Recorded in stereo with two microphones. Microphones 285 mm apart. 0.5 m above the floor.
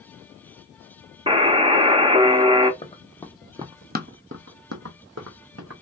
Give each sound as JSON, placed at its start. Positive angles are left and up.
{"t": 1.3, "sound": "a buzzer", "side_deg": -20, "distance_m": 0.5}
{"t": 2.8, "sound": "running footsteps", "side_deg": 20, "distance_m": 0.8}